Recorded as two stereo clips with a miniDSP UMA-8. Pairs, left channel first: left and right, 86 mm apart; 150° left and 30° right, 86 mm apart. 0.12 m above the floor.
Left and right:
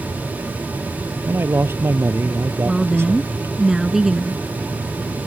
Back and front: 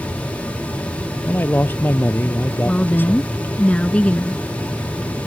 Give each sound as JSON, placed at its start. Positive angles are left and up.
{"t": 1.2, "sound": "a man speaking", "azimuth_deg": -145}
{"t": 2.6, "sound": "a woman speaking", "azimuth_deg": -165}